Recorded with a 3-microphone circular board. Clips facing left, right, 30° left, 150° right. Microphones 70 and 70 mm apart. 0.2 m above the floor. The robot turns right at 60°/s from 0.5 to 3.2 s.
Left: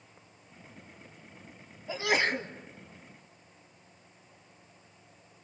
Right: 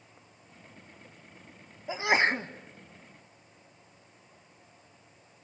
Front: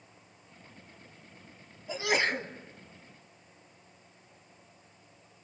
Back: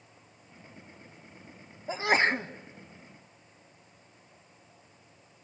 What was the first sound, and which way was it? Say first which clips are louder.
A sneeze: right 3 dB, back 3 dB; 145° right.